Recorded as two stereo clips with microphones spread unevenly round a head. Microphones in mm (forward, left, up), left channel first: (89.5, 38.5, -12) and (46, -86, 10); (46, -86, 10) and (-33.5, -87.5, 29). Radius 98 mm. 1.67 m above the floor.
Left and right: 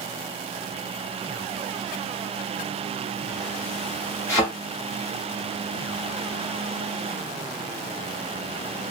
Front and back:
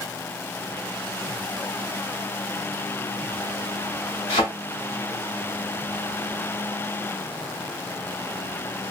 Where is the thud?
40° left, 1.5 m.